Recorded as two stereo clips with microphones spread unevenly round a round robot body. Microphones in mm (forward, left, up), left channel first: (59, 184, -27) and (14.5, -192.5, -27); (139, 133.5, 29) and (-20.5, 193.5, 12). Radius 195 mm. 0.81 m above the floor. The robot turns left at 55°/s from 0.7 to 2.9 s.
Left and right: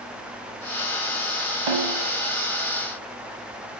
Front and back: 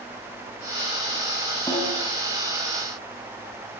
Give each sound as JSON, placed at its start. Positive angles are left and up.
{"t": 1.7, "sound": "a snare drum", "azimuth_deg": -100, "distance_m": 5.0}